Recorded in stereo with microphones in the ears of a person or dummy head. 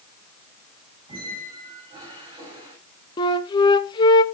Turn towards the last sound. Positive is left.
turn(degrees=30)  # may be behind; listen again after turning